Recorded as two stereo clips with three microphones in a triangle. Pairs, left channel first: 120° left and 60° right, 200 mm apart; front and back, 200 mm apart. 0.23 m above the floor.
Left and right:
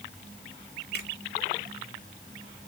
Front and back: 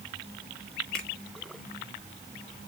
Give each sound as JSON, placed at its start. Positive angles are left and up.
{"t": 0.9, "sound": "a finger snap", "azimuth_deg": 85, "distance_m": 2.5}